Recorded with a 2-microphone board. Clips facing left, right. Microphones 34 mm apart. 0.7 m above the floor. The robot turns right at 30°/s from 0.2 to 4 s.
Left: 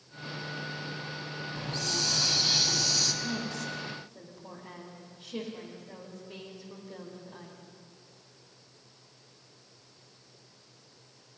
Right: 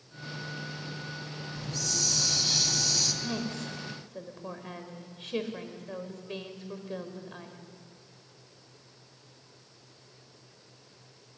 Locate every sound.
1.5 s a hiss: 130° left, 2.5 m; by 3.1 s straight behind, 2.5 m
3.2 s a woman speaking: 40° right (ahead or behind), 3.5 m; by 7.6 s 60° right (ahead or behind), 3.5 m